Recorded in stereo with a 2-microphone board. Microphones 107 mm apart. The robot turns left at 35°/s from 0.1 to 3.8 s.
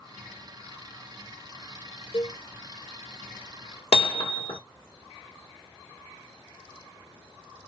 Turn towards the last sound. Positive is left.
turn(degrees=80)